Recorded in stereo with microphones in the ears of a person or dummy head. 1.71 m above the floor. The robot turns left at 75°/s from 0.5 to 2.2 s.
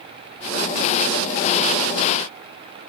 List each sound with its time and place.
Only background noise.